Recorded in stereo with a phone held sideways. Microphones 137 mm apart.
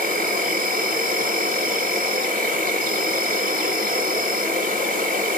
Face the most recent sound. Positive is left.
turn(degrees=-65)  # may be behind; listen again after turning